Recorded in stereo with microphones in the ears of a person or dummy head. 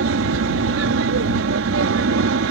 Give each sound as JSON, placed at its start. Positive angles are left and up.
{"t": 0.0, "sound": "an aircraft", "side_deg": -65}